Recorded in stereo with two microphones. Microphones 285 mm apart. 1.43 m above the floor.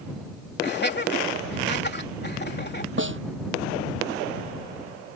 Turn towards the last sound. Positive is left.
turn(degrees=-45)  # may be behind; listen again after turning